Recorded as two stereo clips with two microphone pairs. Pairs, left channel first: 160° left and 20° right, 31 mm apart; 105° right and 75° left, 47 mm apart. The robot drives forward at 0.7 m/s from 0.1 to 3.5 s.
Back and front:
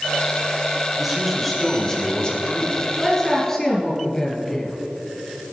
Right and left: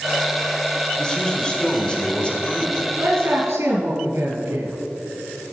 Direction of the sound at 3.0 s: 85° left.